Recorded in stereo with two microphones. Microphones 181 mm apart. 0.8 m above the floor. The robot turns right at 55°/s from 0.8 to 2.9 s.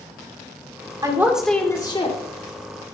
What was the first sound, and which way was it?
A woman speaking, 25° right.